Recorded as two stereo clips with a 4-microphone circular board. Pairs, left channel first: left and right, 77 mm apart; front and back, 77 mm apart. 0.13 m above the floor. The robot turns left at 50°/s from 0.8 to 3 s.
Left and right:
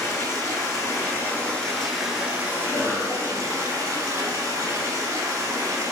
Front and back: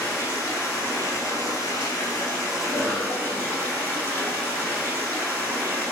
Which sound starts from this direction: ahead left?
Running water, at 0.0 s.